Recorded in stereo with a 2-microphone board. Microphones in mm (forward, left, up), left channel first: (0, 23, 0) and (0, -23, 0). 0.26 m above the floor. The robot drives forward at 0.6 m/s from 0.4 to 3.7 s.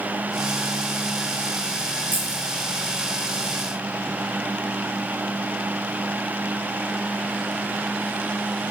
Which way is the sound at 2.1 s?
50° right (ahead or behind).